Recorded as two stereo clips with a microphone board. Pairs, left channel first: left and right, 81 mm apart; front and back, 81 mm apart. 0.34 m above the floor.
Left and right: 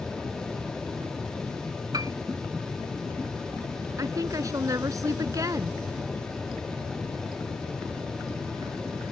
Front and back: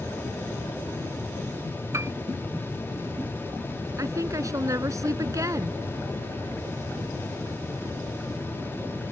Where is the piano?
130° right.